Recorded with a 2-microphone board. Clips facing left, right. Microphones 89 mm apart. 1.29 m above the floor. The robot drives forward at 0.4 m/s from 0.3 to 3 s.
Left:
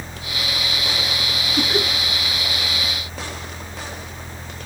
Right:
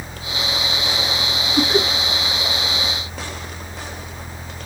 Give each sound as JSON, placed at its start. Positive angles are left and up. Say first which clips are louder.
{"t": 1.6, "sound": "laughter", "louder": "right 4 dB", "side_deg": -20, "distance_m": 1.2}